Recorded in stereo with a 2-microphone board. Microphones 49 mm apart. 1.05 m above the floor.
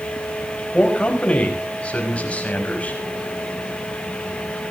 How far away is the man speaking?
About 4.5 m.